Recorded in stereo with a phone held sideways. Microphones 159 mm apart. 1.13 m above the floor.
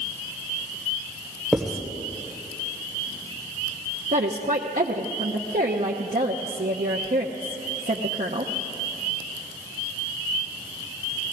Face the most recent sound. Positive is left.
turn(degrees=-55)  # may be behind; listen again after turning